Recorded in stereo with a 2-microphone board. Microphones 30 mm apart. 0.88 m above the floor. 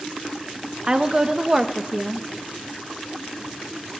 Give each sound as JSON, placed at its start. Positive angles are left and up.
{"t": 0.8, "sound": "a woman speaking", "side_deg": -25, "distance_m": 0.7}